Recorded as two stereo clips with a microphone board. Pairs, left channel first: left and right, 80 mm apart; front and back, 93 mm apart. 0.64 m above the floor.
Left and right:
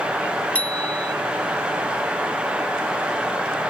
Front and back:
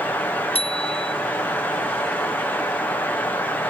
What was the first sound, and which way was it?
A bicycle bell, 15° left.